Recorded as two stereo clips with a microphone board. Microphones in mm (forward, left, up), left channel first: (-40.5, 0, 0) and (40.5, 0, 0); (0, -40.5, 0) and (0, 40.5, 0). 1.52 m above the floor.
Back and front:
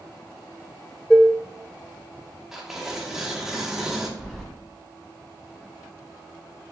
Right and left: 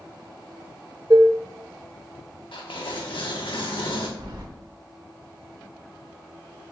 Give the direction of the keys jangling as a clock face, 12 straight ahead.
9 o'clock.